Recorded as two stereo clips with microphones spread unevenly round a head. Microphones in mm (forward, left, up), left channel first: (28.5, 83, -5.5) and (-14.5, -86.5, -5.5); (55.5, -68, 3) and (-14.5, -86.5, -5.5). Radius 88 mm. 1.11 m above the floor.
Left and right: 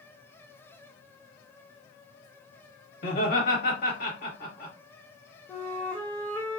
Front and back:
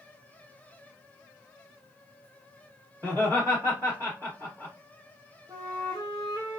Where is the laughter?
120° left, 1.4 m.